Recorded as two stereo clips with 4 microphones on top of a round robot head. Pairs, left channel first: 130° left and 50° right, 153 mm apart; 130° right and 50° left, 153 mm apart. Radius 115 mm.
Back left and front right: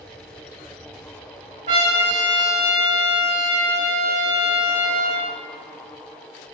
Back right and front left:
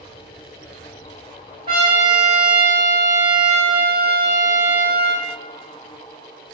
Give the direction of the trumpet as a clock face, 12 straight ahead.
12 o'clock.